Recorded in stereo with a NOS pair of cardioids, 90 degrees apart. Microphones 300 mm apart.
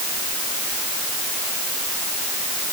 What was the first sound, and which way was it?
Only background noise.